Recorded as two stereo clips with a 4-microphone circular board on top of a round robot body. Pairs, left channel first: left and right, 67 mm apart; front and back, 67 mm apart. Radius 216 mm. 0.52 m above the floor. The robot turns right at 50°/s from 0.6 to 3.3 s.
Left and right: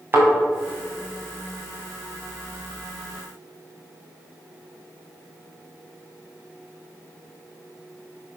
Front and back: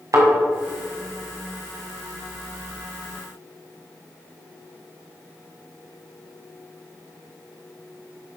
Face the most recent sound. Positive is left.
turn(degrees=-10)